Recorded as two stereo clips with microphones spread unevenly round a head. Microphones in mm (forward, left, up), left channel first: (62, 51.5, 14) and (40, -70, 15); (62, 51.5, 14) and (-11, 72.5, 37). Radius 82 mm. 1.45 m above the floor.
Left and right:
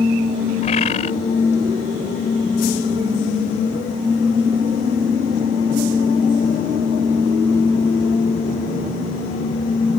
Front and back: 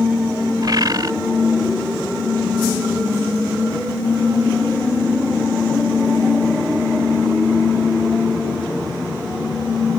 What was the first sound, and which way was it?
A bird, 135° left.